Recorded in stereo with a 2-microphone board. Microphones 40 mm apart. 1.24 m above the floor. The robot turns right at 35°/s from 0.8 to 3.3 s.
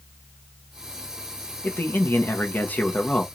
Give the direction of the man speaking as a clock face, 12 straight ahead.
9 o'clock.